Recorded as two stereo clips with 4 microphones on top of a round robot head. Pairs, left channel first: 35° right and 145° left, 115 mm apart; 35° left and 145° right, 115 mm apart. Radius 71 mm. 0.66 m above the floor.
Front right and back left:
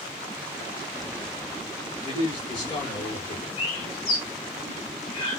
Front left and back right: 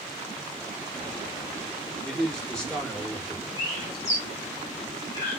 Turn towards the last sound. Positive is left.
turn(degrees=-25)